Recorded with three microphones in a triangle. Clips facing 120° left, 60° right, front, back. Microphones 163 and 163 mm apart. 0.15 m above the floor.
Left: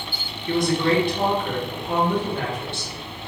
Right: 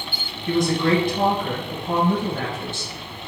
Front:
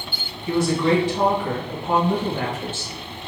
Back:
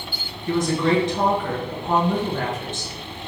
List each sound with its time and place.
0.5 s a woman speaking: 75° right, 1.8 m